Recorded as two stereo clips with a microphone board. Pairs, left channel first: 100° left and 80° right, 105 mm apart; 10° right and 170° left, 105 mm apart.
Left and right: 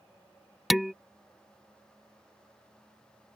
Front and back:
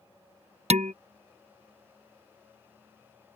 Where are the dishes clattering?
170° right.